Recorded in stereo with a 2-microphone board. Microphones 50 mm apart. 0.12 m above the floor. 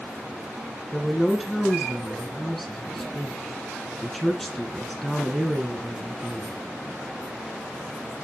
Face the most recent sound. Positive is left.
turn(degrees=0)  # may be behind; listen again after turning